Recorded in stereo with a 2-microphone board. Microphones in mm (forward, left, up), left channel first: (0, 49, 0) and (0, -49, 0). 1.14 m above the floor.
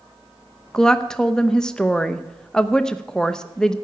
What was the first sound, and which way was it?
A woman speaking, 10° left (ahead or behind).